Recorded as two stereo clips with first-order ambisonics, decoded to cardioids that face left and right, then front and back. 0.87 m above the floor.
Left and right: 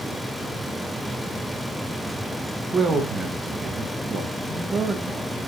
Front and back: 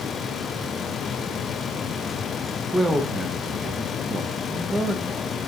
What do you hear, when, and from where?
2.7 s a man speaking: 110° right, 0.6 m